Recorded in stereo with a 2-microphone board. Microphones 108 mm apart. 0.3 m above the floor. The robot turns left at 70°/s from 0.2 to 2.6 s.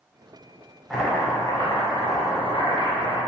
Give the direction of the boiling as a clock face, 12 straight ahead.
6 o'clock.